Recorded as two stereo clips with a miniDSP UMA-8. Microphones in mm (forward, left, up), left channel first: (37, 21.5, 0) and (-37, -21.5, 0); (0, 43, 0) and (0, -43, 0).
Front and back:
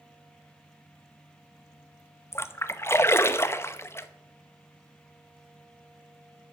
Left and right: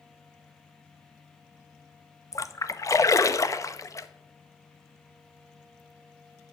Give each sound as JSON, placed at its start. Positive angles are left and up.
{"t": 2.3, "sound": "a splash", "azimuth_deg": 70, "distance_m": 0.7}